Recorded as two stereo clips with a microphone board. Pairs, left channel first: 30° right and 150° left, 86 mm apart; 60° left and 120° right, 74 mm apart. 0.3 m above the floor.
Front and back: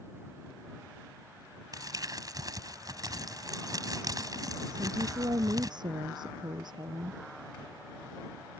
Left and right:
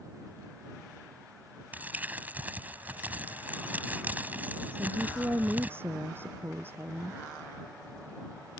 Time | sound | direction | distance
1.7 | crumpling | 175° left | ?
4.7 | a woman speaking | straight behind | ?